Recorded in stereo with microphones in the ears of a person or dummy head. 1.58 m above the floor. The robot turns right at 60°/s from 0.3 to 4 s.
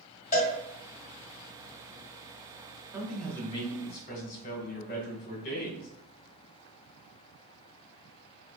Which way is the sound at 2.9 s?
10° right.